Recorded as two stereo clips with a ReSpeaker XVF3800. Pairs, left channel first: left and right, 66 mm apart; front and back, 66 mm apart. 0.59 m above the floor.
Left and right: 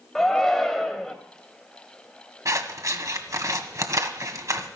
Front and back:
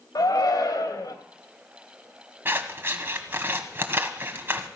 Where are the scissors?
125° right, 1.4 m.